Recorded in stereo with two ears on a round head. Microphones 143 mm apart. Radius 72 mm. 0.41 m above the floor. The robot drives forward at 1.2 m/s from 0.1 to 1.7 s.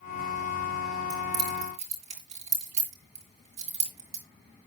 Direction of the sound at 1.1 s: 45° right (ahead or behind).